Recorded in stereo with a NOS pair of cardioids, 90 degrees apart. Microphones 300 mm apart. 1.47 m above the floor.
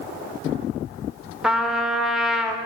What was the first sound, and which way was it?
A trumpet, straight ahead.